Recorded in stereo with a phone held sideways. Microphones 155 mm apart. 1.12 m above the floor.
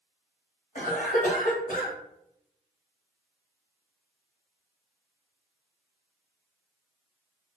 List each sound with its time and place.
0.8 s a cough: 60° left (ahead or behind), 1.6 m